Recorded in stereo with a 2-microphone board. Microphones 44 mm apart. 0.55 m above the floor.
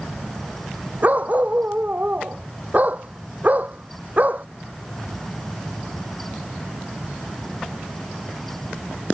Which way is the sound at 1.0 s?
40° right (ahead or behind).